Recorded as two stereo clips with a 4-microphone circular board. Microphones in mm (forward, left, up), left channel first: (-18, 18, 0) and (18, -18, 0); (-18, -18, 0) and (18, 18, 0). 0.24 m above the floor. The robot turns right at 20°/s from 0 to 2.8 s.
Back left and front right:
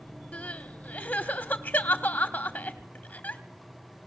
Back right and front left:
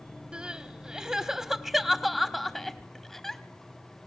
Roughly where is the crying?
Left.